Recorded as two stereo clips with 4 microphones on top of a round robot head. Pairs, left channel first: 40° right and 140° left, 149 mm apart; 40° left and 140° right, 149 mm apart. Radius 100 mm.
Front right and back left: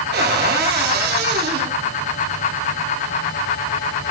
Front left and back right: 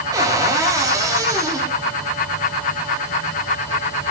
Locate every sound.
0.1 s a cupboard door: 155° left, 2.0 m